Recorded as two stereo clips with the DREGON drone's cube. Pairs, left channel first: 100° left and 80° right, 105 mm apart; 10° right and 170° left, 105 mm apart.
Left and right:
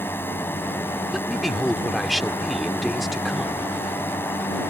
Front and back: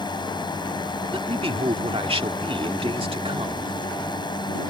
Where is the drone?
30° left.